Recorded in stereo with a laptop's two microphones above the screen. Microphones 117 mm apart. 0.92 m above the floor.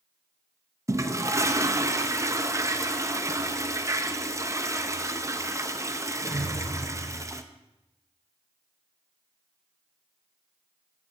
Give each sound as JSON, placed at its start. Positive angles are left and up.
{"t": 0.9, "sound": "a toilet flushing", "side_deg": -25, "distance_m": 0.6}